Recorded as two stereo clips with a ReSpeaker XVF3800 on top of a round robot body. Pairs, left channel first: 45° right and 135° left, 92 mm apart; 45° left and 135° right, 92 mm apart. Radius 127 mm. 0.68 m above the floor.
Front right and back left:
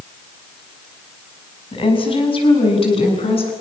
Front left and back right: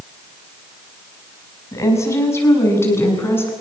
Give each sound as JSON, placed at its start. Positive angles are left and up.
{"t": 1.7, "sound": "a woman speaking", "azimuth_deg": -15, "distance_m": 6.5}